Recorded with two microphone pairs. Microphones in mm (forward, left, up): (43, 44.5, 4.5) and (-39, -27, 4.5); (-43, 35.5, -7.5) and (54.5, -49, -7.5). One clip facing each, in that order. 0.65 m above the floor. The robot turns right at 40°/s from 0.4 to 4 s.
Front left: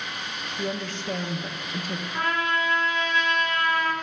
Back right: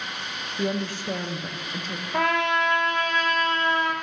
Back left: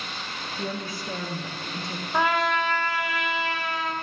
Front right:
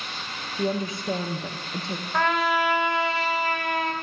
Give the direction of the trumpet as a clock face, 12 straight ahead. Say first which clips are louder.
Back right 4 dB, even; 5 o'clock.